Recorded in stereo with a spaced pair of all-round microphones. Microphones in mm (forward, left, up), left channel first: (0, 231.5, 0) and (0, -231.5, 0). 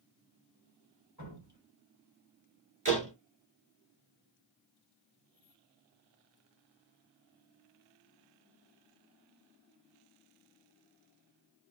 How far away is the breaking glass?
No breaking glass in this recording.